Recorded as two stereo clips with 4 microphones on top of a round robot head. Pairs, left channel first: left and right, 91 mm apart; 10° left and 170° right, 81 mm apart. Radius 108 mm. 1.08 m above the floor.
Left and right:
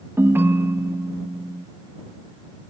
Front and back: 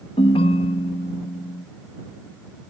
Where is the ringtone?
25° right.